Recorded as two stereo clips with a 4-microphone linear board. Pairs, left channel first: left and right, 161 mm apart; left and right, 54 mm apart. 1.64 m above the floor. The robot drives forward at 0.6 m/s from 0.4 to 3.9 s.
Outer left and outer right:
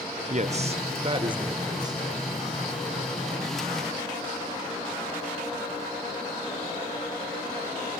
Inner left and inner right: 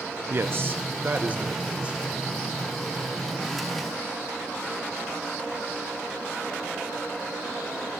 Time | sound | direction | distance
0.3 | a man speaking | 45° right (ahead or behind) | 0.9 m